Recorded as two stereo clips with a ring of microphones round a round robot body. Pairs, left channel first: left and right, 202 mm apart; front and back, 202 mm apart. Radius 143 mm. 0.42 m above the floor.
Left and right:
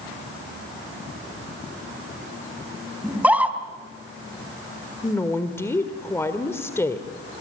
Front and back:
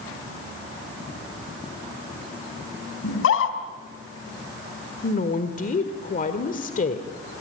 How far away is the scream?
About 3 m.